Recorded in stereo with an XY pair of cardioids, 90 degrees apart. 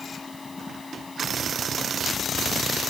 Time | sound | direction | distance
0.0 | a machine running | 30° left | ?